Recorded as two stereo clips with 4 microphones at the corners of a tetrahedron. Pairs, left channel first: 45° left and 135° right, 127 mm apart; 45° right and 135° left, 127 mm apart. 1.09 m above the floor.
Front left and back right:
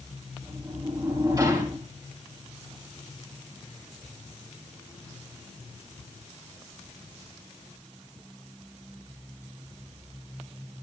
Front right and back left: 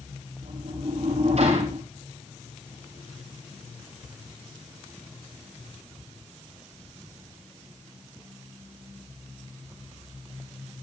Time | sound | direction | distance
0.4 | a sliding door | 165° left | 6.5 m